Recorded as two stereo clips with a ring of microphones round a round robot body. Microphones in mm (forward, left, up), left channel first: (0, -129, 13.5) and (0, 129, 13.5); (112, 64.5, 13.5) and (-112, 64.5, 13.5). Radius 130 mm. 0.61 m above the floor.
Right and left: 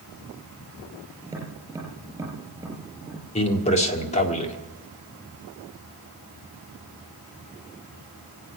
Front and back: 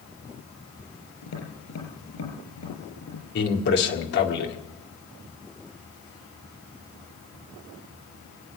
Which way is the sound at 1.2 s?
10° left.